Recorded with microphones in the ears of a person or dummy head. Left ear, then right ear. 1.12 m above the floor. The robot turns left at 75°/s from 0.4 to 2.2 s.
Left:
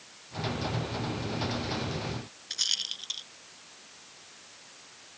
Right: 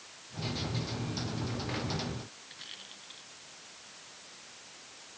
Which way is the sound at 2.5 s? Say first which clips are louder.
Left 19 dB; 85° left.